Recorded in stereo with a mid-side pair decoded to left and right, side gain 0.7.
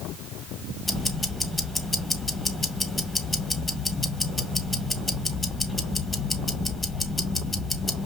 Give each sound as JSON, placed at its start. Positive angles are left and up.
{"t": 0.8, "sound": "ticking", "azimuth_deg": 10, "distance_m": 1.8}